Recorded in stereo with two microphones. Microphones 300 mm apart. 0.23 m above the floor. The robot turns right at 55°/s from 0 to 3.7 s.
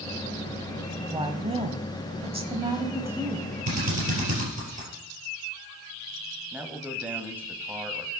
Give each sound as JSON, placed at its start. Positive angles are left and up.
{"t": 1.1, "sound": "a woman speaking", "side_deg": -15, "distance_m": 1.0}
{"t": 3.7, "sound": "a drill", "side_deg": -60, "distance_m": 4.5}
{"t": 6.5, "sound": "a man speaking", "side_deg": -5, "distance_m": 1.1}